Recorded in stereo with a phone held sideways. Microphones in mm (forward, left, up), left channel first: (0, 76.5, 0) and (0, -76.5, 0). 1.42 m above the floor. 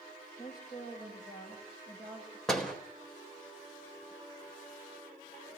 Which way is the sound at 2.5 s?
5° left (ahead or behind).